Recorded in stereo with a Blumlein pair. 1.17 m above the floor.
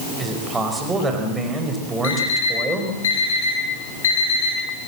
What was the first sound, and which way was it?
A man speaking, 10° right.